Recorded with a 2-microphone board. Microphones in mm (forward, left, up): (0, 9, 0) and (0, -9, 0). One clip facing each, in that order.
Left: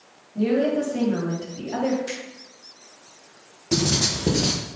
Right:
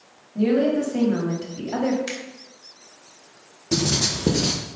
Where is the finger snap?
85° right, 2.5 m.